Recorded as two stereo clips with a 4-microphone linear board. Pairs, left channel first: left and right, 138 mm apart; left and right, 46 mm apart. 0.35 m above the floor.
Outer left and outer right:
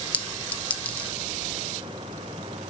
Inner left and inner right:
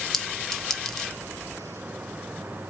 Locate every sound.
0.1 s a clink: 10° left (ahead or behind), 0.9 m